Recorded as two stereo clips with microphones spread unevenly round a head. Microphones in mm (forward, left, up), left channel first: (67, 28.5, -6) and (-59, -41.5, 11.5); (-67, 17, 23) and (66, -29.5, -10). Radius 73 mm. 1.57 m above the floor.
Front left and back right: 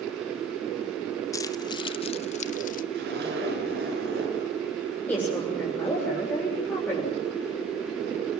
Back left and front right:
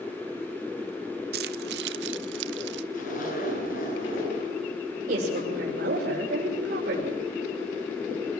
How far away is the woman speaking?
About 7 m.